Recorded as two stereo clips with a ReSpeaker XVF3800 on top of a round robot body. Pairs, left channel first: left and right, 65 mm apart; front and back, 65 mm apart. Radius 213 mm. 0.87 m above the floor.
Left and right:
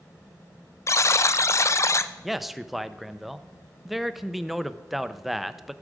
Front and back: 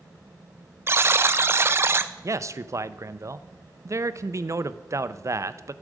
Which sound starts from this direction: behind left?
A buzzer, at 0.9 s.